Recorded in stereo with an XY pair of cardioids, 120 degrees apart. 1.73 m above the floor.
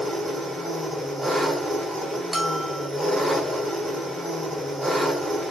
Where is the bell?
15° right, 0.5 m.